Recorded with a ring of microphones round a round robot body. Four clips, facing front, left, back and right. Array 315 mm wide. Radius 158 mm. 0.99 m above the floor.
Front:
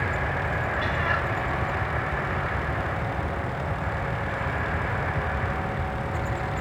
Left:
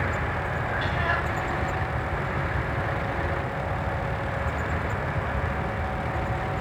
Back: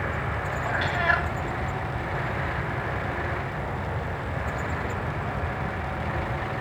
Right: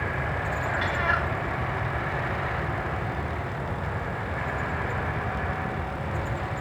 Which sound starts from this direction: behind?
A cat meowing, at 0.7 s.